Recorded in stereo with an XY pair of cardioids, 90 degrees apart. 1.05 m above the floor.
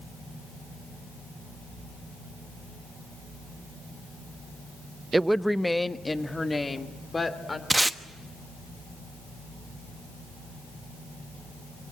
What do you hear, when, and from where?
5.1 s a woman speaking: 25° right, 0.5 m; by 7.6 s 25° left, 3 m
7.7 s tape being pulled: 20° right, 1.1 m